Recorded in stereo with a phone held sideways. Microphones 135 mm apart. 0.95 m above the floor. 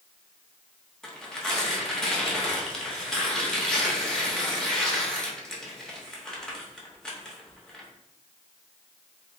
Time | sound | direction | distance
1.0 | tearing paper | 5° left (ahead or behind) | 0.7 m